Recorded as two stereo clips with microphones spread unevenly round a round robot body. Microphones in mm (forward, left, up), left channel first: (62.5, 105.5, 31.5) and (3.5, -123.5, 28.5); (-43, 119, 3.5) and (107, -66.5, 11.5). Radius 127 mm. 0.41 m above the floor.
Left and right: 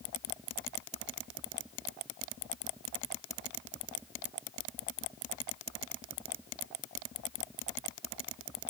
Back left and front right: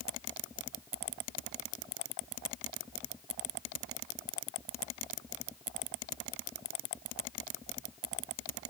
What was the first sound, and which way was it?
Only background noise.